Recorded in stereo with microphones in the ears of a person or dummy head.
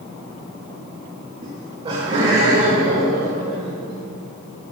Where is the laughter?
25° right (ahead or behind), 0.8 m; by 4.0 s 40° right (ahead or behind), 3 m.